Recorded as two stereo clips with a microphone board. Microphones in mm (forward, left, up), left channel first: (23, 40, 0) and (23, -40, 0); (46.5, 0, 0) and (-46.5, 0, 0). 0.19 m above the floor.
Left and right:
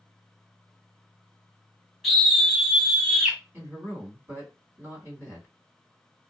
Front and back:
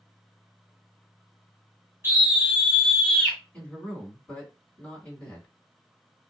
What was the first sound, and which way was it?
A scream, 170° left.